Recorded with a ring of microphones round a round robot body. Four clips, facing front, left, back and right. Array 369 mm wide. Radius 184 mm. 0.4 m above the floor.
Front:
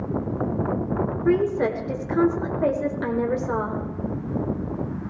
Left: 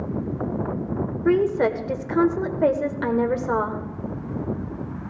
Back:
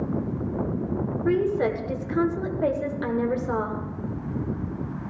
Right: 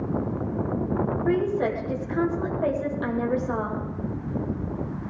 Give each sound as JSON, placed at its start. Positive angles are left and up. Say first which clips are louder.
{"t": 1.2, "sound": "a woman speaking", "louder": "left 6 dB, front 2 dB", "azimuth_deg": 85, "distance_m": 1.7}